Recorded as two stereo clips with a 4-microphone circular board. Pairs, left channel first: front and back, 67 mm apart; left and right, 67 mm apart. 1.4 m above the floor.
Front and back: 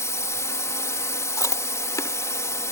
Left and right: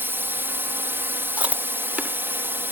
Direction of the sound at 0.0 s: 35° right.